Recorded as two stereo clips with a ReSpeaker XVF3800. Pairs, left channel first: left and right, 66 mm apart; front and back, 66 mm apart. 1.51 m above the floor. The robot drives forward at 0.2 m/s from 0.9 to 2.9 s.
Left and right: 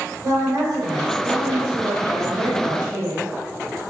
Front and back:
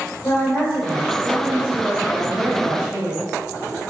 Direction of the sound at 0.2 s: 70° right.